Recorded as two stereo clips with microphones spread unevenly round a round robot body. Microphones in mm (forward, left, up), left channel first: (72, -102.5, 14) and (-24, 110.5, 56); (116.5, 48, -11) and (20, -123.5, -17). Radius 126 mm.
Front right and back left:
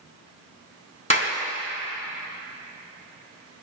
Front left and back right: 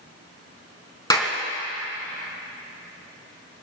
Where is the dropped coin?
I don't hear a dropped coin.